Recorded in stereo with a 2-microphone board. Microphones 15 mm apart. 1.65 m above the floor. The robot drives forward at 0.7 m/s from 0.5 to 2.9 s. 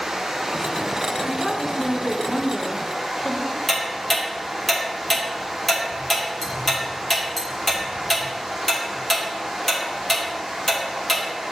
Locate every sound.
0.0 s running water: 50° right (ahead or behind), 1.6 m; by 11.5 s 45° right (ahead or behind), 1.7 m
1.2 s a woman speaking: 20° left (ahead or behind), 1.9 m; by 3.6 s 50° left (ahead or behind), 0.9 m
3.7 s ticking: 10° left (ahead or behind), 2.0 m